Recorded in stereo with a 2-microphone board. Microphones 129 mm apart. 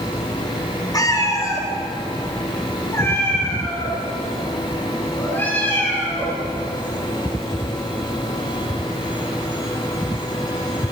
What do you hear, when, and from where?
0.9 s a cat meowing: 25° left (ahead or behind), 3 m; by 6.4 s 15° left (ahead or behind), 9.5 m